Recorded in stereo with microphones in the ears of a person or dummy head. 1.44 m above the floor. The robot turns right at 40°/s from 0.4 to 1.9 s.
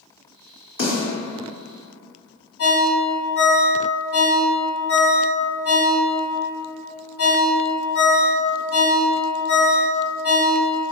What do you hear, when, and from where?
0.8 s a snare drum: 40° left (ahead or behind), 1.7 m; by 1.0 s 45° left (ahead or behind), 1.7 m
2.6 s a ringtone: 40° left (ahead or behind), 1.8 m